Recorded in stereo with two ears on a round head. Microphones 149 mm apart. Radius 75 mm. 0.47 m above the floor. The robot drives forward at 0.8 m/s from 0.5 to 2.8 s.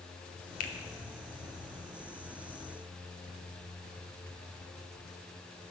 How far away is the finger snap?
About 1.1 m.